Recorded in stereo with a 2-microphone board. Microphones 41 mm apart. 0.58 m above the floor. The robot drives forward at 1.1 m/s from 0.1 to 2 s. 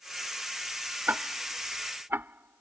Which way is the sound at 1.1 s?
50° right (ahead or behind).